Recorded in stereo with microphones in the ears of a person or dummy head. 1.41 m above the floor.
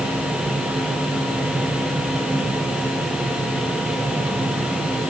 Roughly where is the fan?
Centre.